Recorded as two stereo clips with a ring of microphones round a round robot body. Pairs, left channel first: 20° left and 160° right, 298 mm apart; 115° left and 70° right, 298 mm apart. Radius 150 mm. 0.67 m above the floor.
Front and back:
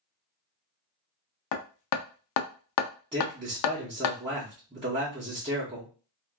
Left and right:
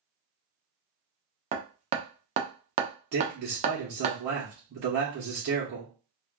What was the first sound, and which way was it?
Hammering, straight ahead.